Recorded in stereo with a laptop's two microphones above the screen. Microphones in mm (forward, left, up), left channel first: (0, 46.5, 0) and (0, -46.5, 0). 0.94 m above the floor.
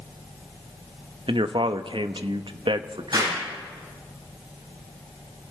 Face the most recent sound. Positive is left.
turn(degrees=-50)  # may be behind; listen again after turning